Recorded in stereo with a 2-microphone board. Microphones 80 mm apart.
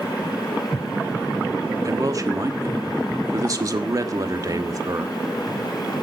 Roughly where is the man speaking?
Right.